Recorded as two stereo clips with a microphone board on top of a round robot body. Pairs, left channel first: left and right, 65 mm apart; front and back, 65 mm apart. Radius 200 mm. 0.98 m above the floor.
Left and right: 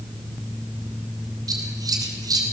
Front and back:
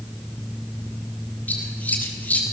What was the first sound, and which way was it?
Scissors, 65° right.